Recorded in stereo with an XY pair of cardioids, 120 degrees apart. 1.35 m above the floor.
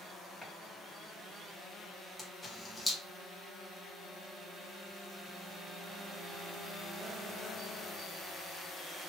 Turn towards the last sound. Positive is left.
turn(degrees=10)